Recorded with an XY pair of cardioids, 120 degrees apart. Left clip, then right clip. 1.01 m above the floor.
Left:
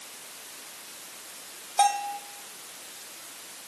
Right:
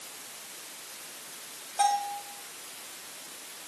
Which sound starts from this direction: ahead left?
A bell, at 1.8 s.